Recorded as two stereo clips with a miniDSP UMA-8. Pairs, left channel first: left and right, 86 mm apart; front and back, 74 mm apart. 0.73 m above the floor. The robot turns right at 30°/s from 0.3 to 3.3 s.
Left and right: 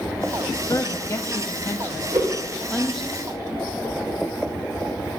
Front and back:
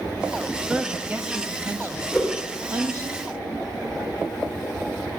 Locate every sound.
0.7 s a woman speaking: 110° left, 0.8 m; by 3.1 s straight behind, 0.8 m
2.1 s a whoosh: 95° right, 2.5 m; by 2.4 s 85° right, 2.5 m